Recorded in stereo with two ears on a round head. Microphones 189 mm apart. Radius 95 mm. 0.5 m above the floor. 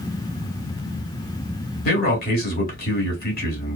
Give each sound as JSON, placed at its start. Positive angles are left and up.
{"t": 1.9, "sound": "a man speaking", "side_deg": 45, "distance_m": 1.5}